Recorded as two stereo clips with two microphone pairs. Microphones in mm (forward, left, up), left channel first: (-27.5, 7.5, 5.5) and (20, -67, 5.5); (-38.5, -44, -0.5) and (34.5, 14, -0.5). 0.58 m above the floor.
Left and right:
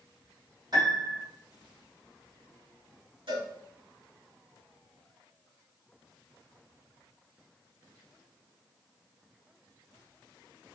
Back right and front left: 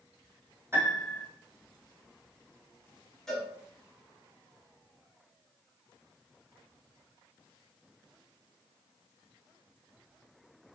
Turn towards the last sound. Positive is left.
turn(degrees=-60)